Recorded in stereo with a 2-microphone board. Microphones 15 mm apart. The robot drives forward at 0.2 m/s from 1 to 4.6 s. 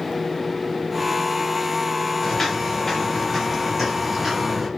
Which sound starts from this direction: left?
Footsteps, at 2.2 s.